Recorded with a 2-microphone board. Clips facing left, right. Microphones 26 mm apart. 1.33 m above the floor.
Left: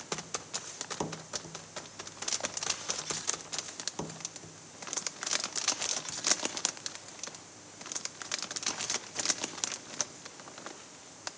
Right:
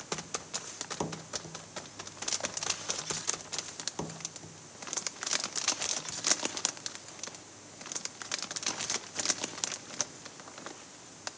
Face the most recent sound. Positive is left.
No sound to turn to.